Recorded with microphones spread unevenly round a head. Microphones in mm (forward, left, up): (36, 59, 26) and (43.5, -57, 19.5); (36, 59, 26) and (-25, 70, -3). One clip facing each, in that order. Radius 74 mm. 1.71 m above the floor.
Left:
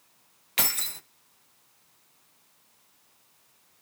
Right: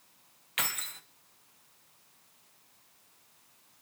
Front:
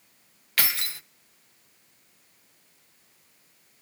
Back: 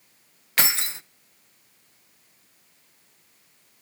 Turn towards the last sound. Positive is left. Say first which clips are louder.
# left 4 dB, back 3 dB
turn(degrees=85)